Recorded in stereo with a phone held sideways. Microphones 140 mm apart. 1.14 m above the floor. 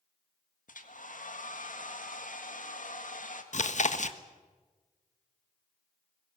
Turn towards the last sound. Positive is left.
turn(degrees=55)  # may be behind; listen again after turning